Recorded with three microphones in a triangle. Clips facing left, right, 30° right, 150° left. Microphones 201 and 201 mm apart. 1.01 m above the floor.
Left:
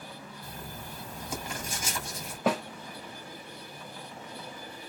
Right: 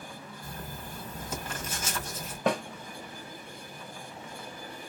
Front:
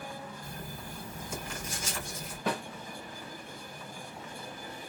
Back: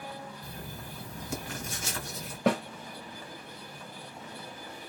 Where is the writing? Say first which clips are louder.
Right 2 dB, even; 170° left, 2 m.